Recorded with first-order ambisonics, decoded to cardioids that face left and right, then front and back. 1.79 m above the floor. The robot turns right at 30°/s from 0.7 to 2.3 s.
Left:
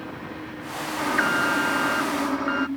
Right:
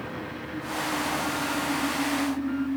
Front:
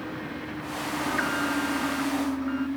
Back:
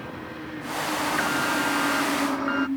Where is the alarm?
85° left; by 2.7 s 125° left.